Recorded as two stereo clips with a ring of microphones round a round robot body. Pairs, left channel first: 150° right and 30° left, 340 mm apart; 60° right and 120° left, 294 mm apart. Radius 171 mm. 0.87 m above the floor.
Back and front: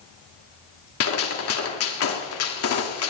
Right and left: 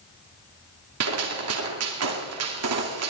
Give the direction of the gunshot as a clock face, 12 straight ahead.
7 o'clock.